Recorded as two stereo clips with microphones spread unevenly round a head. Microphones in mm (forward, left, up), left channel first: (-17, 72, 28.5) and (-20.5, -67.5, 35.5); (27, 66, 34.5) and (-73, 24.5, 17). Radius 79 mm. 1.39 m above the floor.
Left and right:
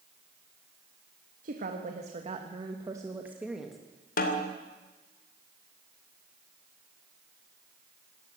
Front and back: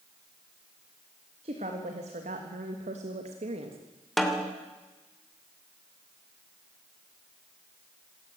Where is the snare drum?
110° left, 2.5 m.